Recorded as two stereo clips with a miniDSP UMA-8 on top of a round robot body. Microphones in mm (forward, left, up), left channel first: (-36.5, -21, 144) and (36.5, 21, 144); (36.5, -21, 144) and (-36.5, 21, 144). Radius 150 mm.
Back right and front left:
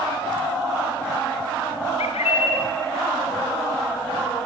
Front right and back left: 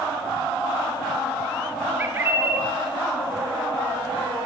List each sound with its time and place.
2.0 s a bird: 140° right, 1.0 m